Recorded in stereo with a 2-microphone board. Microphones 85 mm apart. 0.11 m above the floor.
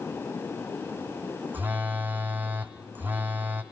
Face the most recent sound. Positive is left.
turn(degrees=-25)  # may be behind; listen again after turning